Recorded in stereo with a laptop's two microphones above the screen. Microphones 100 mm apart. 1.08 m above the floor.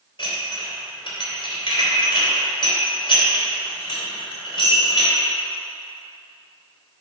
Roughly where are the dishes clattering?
Left.